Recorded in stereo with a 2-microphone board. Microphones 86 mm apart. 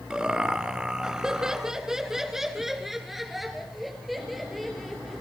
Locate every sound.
0.1 s laughter: 10° right (ahead or behind), 1.4 m; by 5.2 s centre (ahead or behind), 2.5 m